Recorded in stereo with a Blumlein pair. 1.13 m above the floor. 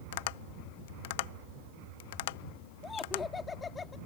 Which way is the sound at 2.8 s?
20° left.